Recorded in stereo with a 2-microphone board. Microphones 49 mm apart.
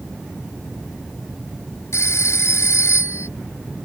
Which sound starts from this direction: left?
A phone ringing, at 1.9 s.